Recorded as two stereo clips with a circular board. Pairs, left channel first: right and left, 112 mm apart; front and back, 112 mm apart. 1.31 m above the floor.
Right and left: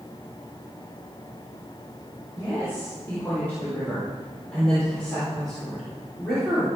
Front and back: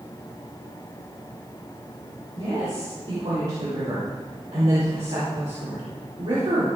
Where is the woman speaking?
160° right, 6.5 m; by 6.7 s 175° left, 4 m.